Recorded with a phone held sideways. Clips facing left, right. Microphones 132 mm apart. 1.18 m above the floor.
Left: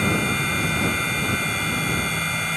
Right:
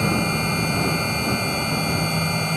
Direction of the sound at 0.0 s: 30° right (ahead or behind).